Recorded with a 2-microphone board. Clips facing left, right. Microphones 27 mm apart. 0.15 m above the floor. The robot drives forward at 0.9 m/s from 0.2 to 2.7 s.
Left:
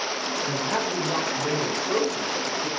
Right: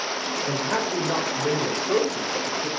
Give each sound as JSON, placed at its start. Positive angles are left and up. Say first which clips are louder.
{"t": 0.5, "sound": "a man speaking", "louder": "right 2 dB", "side_deg": -65, "distance_m": 5.0}